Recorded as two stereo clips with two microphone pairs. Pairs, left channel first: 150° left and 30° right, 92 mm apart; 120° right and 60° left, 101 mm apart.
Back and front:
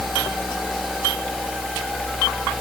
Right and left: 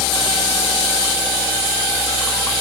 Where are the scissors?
I don't hear scissors.